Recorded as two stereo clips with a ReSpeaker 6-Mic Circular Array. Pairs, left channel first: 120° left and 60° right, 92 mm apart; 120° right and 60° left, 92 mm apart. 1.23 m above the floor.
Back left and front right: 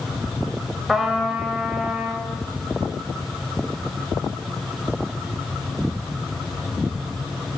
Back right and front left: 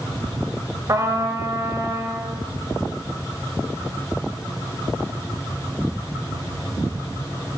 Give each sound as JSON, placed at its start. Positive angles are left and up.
{"t": 0.9, "sound": "a trumpet", "azimuth_deg": 25, "distance_m": 1.3}